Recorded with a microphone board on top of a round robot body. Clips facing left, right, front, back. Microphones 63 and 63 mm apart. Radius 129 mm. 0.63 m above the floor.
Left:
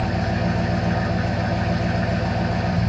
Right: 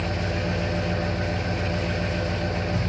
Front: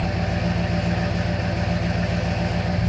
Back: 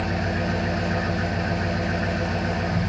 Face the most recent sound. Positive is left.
turn(degrees=110)